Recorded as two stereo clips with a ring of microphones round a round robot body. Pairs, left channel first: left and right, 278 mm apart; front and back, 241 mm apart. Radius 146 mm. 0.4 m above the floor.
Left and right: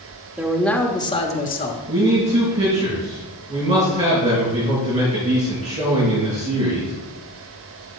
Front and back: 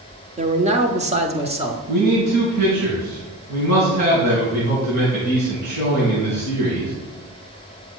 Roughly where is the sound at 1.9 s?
Behind.